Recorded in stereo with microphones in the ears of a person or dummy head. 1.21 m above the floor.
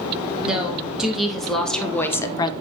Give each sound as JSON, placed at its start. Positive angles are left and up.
{"t": 0.4, "sound": "a woman speaking", "side_deg": -5, "distance_m": 2.5}